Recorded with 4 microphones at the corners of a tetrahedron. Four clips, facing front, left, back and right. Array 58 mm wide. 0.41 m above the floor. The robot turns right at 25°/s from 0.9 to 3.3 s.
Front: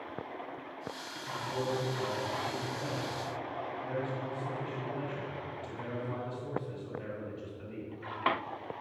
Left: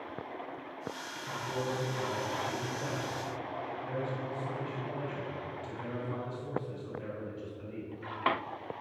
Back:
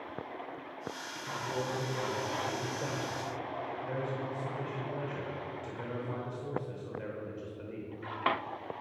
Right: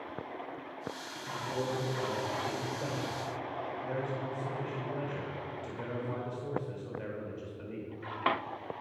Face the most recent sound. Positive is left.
turn(degrees=-130)